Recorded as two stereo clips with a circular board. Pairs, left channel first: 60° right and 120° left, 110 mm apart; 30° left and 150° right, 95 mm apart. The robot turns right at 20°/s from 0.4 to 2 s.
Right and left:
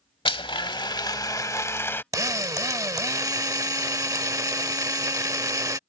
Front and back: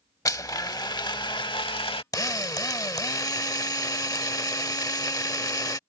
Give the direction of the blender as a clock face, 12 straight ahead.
1 o'clock.